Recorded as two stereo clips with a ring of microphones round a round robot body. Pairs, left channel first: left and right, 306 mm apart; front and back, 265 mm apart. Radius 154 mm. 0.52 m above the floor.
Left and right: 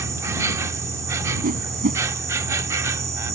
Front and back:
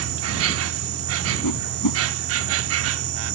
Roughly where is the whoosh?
Ahead right.